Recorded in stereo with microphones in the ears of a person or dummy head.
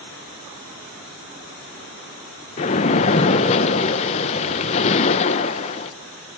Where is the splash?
35° left (ahead or behind), 0.8 m.